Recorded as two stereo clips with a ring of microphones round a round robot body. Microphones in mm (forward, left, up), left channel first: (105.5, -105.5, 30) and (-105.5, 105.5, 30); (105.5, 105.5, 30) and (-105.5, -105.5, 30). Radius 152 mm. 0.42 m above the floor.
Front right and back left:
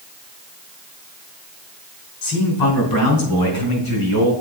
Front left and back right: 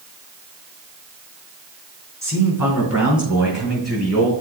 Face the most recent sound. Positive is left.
turn(degrees=-45)